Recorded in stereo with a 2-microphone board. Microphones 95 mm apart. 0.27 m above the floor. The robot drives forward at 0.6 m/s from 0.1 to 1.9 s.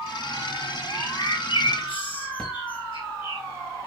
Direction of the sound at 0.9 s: 70° left (ahead or behind).